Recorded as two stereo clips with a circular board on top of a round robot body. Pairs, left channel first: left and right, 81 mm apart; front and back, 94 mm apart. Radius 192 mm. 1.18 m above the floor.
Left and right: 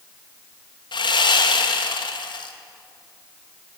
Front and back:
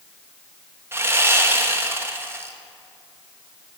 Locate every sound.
0.9 s sawing: 115° left, 1.2 m